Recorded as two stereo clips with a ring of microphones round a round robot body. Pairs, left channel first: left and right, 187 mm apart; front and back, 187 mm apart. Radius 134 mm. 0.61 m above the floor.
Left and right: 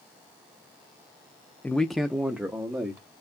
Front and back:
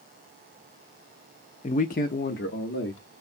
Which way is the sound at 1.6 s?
15° left.